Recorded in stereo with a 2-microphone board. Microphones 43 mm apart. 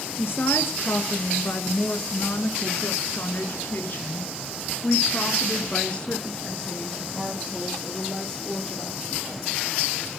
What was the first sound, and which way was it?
A woman speaking, 60° left (ahead or behind).